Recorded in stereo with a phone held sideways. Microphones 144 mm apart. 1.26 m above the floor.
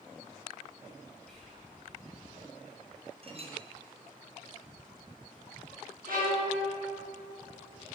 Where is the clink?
40° right (ahead or behind), 0.8 m.